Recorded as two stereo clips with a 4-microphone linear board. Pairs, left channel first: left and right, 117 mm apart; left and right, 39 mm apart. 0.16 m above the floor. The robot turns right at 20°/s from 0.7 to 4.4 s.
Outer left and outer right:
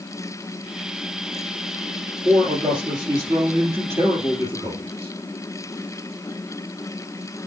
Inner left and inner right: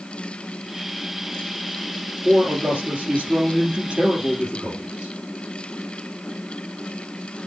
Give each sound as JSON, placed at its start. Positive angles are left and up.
{"t": 2.2, "sound": "a man speaking", "azimuth_deg": -70, "distance_m": 3.0}